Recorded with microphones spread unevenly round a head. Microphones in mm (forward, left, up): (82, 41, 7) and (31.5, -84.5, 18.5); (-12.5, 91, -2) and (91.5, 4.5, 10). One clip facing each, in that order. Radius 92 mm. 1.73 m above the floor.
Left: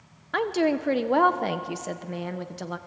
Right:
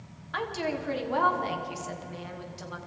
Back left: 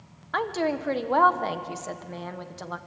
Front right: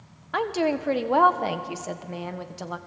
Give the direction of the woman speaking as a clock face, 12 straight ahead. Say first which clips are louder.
Left 8 dB, front right 2 dB; 11 o'clock.